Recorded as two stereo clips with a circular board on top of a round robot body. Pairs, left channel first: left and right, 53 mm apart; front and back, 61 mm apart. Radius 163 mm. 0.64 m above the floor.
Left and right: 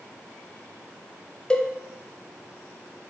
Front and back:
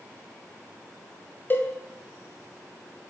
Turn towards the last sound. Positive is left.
turn(degrees=25)